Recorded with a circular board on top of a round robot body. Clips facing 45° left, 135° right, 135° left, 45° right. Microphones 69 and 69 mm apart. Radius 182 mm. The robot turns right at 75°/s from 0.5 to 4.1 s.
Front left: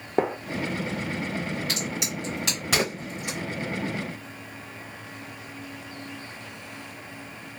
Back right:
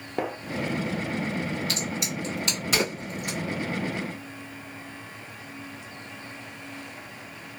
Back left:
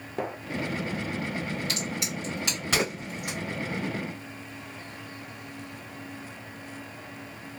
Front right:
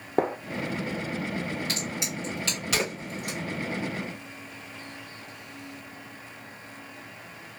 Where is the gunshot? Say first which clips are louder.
Front left 5 dB, front right 7 dB; 15° right, 0.8 m.